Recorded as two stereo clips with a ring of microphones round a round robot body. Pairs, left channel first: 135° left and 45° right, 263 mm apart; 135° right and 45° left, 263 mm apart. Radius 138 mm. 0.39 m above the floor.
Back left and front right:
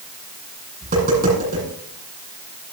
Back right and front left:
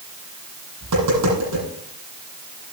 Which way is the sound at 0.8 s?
15° left.